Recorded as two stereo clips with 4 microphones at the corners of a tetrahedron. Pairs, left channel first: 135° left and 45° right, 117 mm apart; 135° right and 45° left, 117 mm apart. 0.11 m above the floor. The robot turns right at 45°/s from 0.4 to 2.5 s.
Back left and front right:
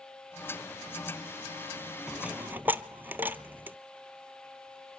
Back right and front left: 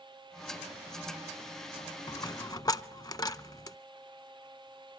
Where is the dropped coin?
125° right, 0.6 m; by 3.8 s 105° right, 0.6 m.